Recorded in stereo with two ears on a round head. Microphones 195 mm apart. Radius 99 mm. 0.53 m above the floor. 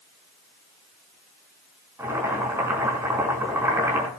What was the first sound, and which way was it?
Boiling, 10° right (ahead or behind).